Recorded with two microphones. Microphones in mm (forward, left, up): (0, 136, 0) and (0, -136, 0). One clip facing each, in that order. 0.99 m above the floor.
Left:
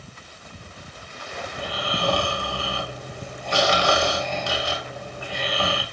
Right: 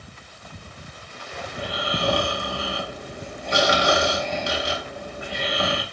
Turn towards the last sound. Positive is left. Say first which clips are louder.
# right 2 dB
turn(degrees=-20)  # may be behind; listen again after turning